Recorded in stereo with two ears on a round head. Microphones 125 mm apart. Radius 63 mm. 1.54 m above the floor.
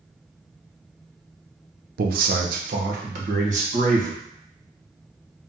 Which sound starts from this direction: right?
A man speaking, at 2.0 s.